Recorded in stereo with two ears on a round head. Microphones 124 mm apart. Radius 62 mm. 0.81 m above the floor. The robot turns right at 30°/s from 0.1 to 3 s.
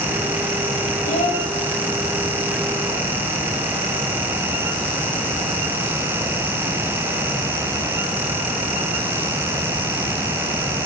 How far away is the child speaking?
About 2 m.